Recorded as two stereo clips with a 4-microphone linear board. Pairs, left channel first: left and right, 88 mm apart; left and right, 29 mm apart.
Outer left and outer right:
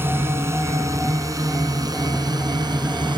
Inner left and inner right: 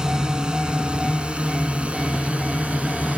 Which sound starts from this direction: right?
A drone, at 0.0 s.